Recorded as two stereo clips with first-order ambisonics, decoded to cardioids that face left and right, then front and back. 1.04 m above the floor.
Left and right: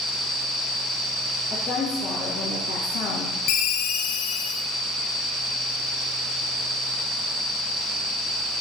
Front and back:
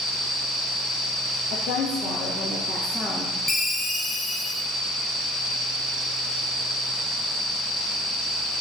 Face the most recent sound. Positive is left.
turn(degrees=80)